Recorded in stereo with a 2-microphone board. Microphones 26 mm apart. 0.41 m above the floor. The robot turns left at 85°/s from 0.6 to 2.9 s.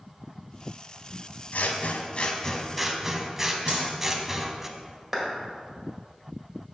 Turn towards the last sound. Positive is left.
turn(degrees=-10)  # may be behind; listen again after turning